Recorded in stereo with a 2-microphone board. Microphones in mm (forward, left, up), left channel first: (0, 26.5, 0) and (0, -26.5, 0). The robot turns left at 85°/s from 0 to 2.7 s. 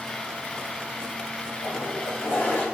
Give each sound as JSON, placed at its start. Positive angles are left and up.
{"t": 1.6, "sound": "a toilet flushing", "azimuth_deg": 110, "distance_m": 9.0}